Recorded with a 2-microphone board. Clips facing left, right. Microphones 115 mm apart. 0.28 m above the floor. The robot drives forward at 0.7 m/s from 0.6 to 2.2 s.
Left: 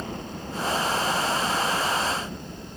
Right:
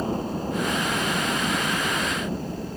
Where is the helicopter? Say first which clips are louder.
Right 8 dB; 30° right (ahead or behind).